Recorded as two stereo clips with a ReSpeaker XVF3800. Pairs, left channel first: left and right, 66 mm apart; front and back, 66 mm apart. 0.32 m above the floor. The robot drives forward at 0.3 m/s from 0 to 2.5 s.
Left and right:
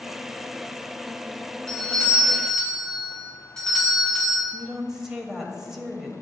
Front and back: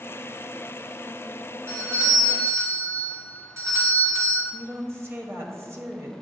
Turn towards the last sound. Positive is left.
turn(degrees=-170)